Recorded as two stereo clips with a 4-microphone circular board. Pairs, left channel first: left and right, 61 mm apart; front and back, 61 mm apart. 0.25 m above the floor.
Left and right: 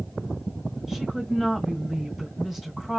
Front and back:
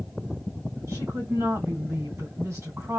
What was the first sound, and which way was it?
A woman speaking, 170° right.